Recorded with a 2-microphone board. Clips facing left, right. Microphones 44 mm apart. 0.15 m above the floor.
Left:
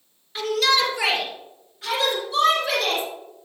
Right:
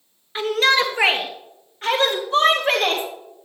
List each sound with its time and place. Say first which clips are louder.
0.3 s a shout: right 3 dB; 35° right (ahead or behind), 2.5 m; by 3.0 s 50° right (ahead or behind), 5.5 m